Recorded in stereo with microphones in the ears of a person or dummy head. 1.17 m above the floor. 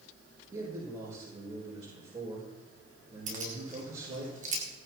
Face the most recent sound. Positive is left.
turn(degrees=-30)  # may be behind; listen again after turning